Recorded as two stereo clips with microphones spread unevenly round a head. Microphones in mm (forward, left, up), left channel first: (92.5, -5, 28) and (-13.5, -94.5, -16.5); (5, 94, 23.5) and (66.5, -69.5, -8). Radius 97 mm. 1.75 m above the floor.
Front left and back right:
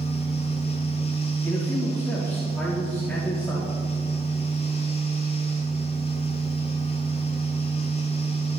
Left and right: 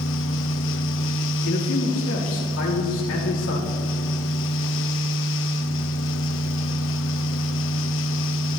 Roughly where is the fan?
Left.